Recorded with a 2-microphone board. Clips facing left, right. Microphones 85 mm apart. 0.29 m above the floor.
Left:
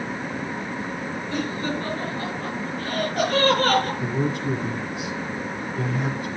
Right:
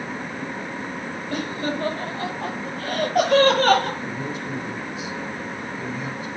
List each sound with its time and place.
1.3 s laughter: 55° right (ahead or behind), 8.5 m; by 3.9 s 70° right (ahead or behind), 6 m
4.0 s a man speaking: 55° left (ahead or behind), 1.8 m